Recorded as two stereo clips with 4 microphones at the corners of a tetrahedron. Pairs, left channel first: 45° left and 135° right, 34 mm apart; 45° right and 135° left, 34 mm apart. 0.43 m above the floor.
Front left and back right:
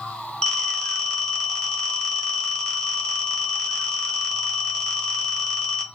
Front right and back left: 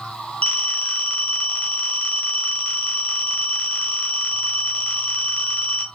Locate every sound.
0.4 s a phone ringing: 15° right, 0.9 m